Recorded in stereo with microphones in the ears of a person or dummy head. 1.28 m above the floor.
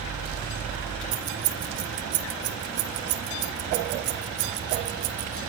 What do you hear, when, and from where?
1.1 s keys jangling: 75° right (ahead or behind), 1.1 m